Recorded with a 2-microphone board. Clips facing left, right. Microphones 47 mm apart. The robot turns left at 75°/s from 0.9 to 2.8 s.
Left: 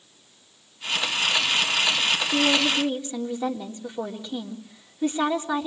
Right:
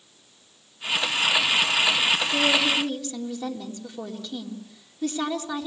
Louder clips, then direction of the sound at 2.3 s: Left 2 dB; 55° left.